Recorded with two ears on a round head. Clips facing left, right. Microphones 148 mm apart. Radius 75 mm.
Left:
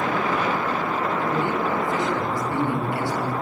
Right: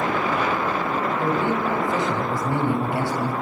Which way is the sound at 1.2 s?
20° right (ahead or behind).